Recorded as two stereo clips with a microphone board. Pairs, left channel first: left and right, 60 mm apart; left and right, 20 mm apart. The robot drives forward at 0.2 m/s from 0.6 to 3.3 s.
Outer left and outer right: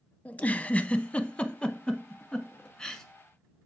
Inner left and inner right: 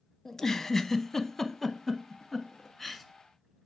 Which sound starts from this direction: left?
A giggle, at 0.2 s.